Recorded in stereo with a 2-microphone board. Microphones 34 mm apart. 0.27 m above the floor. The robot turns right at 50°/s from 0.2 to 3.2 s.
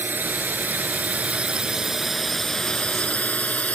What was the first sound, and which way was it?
A drone, 70° right (ahead or behind).